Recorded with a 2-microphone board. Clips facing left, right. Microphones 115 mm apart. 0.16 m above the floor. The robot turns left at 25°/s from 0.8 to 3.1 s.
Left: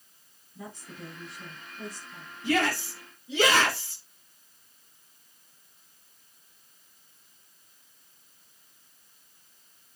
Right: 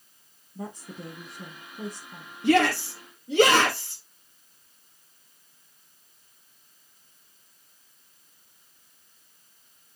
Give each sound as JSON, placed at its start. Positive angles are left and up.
{"t": 0.6, "sound": "a woman speaking", "azimuth_deg": -55, "distance_m": 2.5}
{"t": 2.4, "sound": "a shout", "side_deg": -65, "distance_m": 3.5}